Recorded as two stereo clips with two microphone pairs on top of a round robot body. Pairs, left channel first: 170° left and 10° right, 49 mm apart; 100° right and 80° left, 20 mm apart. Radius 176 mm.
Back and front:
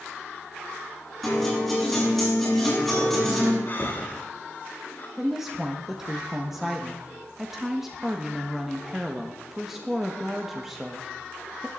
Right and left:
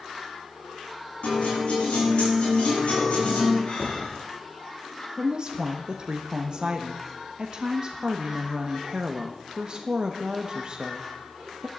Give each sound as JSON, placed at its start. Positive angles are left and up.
{"t": 1.2, "sound": "a guitar", "azimuth_deg": -110, "distance_m": 9.5}
{"t": 3.7, "sound": "breathing", "azimuth_deg": -145, "distance_m": 3.5}
{"t": 5.2, "sound": "a woman speaking", "azimuth_deg": 65, "distance_m": 1.5}